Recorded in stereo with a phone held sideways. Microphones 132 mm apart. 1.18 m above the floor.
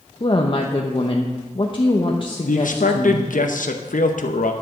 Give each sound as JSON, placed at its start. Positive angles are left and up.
{"t": 0.2, "sound": "a woman speaking", "side_deg": 40, "distance_m": 0.9}
{"t": 2.5, "sound": "a man speaking", "side_deg": 85, "distance_m": 0.8}